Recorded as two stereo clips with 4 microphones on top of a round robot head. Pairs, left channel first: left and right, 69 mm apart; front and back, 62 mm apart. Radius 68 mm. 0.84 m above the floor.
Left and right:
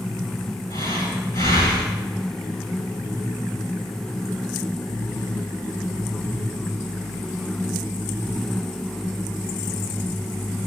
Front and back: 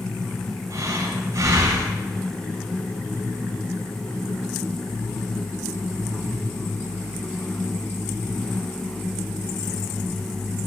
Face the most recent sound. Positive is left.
turn(degrees=145)